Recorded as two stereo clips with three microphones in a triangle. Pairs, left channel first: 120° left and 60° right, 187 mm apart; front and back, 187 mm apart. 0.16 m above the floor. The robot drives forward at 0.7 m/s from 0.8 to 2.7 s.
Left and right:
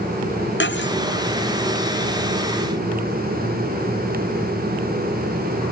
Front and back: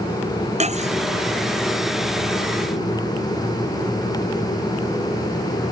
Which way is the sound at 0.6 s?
125° left.